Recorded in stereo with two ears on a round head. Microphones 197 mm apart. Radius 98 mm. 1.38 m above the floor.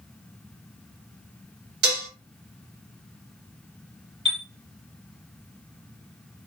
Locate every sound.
1.8 s dishes clattering: 50° right (ahead or behind), 1.3 m
4.2 s a chime: 25° right (ahead or behind), 1.2 m